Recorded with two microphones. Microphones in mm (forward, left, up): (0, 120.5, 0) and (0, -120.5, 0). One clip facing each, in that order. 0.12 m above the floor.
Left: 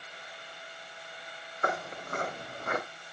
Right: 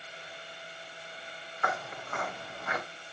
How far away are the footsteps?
About 3.5 m.